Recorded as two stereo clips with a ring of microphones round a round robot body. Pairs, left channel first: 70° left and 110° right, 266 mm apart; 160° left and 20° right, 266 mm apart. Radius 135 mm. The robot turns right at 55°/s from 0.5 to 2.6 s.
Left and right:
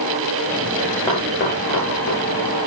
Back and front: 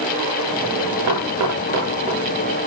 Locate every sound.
1.1 s knocking: 10° right, 6 m; by 2.2 s 50° left, 6 m